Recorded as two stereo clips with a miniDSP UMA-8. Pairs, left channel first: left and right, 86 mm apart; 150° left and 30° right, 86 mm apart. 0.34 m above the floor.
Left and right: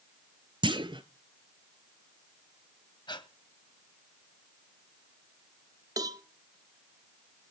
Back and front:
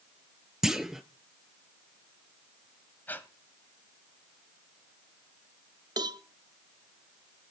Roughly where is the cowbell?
Ahead right.